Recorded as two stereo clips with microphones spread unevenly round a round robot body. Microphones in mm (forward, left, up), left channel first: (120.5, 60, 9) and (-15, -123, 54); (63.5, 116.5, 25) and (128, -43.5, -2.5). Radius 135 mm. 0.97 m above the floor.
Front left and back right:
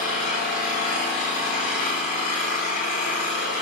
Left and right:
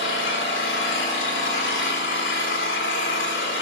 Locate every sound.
0.0 s an engine running: 110° left, 3 m